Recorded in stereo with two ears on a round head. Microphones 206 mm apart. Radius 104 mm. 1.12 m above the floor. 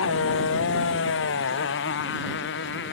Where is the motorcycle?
60° left (ahead or behind); by 2.9 s 50° left (ahead or behind).